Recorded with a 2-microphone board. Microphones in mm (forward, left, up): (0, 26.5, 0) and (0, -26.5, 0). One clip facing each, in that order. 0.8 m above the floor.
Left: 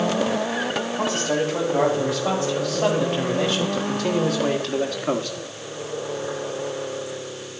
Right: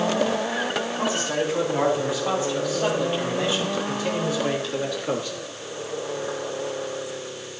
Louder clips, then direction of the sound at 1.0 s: Left 3 dB; 70° left (ahead or behind).